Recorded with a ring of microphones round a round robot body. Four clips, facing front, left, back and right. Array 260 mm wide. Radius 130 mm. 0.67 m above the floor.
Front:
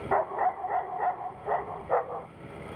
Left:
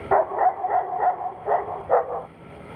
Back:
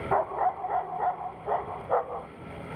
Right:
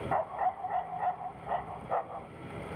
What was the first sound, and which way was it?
A dog barking, 85° left.